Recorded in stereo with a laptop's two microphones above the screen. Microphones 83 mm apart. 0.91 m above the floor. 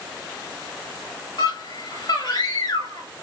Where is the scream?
45° left (ahead or behind), 1.4 m.